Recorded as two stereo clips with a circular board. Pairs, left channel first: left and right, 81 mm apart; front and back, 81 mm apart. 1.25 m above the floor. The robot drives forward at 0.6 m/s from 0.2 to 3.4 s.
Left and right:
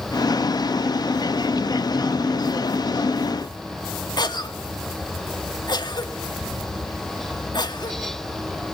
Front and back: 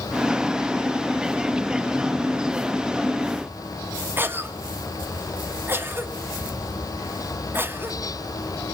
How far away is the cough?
About 2.5 m.